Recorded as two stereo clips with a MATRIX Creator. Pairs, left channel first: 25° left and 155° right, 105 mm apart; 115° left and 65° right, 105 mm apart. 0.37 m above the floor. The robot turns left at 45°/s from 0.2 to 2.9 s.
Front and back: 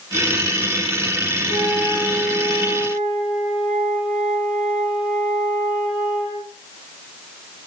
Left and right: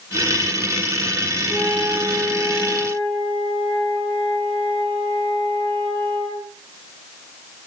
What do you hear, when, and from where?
1.5 s a flute: 10° right, 5.5 m; by 6.5 s 75° right, 5.5 m